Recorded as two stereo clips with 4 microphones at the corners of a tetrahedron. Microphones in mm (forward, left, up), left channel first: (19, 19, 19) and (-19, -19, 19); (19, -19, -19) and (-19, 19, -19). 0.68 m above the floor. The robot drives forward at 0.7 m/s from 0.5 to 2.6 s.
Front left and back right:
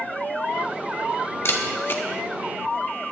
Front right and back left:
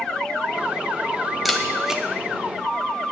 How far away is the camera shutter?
About 1.2 m.